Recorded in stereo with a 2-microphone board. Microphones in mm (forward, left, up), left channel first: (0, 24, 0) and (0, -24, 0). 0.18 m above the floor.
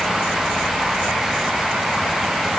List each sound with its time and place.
Only background noise.